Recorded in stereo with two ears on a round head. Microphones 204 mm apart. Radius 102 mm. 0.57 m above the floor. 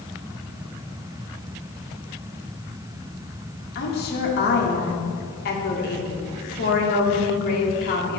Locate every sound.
3.8 s a woman speaking: 45° left (ahead or behind), 1.5 m